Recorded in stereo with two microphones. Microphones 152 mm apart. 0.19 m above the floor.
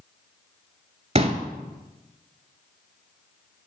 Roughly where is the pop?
Right.